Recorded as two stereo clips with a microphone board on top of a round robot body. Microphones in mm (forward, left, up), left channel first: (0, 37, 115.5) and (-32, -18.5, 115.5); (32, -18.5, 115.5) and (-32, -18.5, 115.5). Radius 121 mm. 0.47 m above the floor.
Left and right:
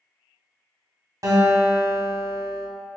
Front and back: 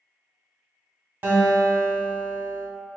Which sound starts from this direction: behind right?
A guitar, at 1.2 s.